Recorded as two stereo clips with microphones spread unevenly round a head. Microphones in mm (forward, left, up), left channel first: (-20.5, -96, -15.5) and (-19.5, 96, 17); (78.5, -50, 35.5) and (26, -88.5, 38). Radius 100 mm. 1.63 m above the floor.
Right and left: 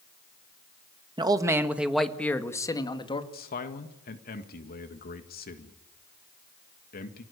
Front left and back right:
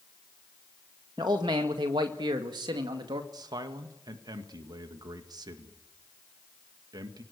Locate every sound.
1.2 s a man speaking: 155° left, 1.7 m; by 3.2 s 155° right, 2 m
3.3 s a man speaking: 135° right, 1.8 m